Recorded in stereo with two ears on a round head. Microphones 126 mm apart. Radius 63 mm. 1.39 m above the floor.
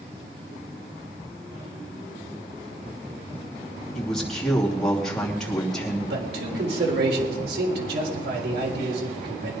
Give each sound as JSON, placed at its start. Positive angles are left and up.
{"t": 4.0, "sound": "a man speaking", "side_deg": 5, "distance_m": 2.5}
{"t": 6.1, "sound": "a man speaking", "side_deg": -80, "distance_m": 3.5}